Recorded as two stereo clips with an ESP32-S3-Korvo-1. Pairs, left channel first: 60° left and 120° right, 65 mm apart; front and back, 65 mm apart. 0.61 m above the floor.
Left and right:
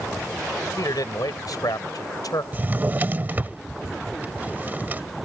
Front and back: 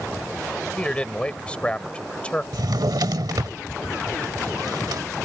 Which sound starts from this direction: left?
A man speaking, at 0.8 s.